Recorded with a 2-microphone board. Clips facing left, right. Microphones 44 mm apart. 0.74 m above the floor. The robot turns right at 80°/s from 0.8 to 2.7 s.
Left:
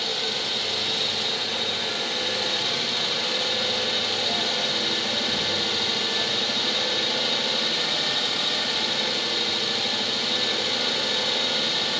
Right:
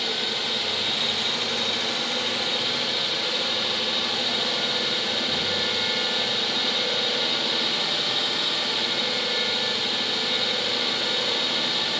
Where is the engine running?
165° right, 1.5 m; by 12.0 s 10° right, 1.5 m.